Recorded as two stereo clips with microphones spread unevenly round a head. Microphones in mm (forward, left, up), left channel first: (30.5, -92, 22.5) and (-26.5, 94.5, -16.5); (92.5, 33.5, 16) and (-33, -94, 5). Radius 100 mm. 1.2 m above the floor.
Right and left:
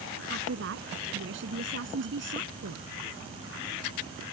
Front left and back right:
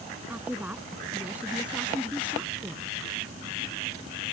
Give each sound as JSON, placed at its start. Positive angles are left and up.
{"t": 0.3, "sound": "a woman speaking", "azimuth_deg": 140}